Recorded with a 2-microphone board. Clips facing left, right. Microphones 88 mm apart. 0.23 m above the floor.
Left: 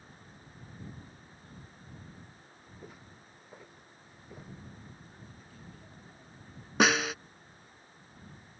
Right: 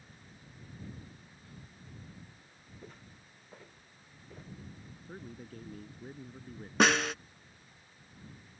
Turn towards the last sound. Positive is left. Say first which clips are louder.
# even
turn(degrees=5)  # may be behind; listen again after turning